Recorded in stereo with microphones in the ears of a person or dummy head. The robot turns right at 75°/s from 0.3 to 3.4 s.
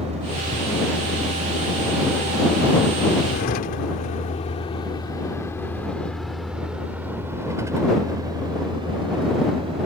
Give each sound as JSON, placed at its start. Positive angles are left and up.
{"t": 0.0, "sound": "a vehicle", "side_deg": -35}